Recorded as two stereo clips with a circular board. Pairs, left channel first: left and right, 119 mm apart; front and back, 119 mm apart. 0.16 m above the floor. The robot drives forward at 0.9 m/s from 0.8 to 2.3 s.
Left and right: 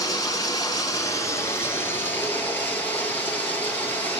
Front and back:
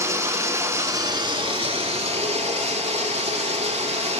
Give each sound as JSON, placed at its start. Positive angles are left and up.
{"t": 0.0, "sound": "running water", "azimuth_deg": 130, "distance_m": 1.1}